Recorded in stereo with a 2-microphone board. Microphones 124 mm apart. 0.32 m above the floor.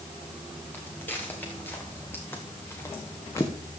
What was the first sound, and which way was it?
Footsteps, 15° left (ahead or behind).